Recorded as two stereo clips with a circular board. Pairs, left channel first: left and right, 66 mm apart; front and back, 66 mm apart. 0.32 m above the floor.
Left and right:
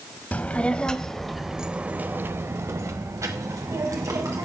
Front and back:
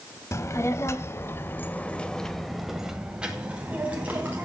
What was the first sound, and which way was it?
A child speaking, 25° left.